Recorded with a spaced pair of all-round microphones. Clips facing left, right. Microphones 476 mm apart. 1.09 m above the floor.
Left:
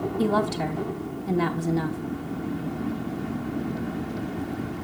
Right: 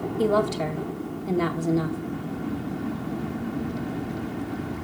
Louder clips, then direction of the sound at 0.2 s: Right 2 dB; 10° left (ahead or behind).